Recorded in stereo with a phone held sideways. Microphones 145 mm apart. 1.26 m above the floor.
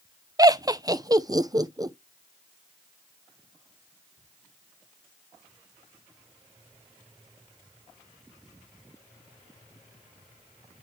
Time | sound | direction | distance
0.4 | laughter | 25° right (ahead or behind) | 0.6 m